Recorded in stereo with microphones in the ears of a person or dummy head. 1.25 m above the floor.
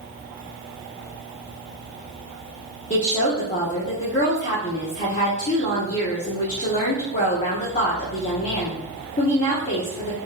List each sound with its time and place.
2.9 s a woman speaking: 40° left (ahead or behind), 0.7 m